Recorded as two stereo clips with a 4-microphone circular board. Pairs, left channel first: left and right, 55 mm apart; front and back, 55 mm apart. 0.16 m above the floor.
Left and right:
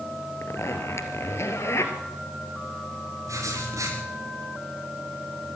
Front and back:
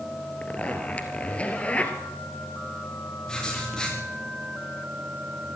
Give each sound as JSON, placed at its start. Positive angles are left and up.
{"t": 0.4, "sound": "a zipper", "azimuth_deg": 65, "distance_m": 2.5}
{"t": 3.3, "sound": "writing", "azimuth_deg": -80, "distance_m": 7.0}